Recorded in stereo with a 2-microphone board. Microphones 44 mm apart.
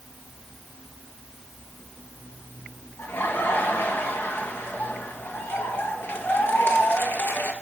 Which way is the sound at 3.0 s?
55° left (ahead or behind).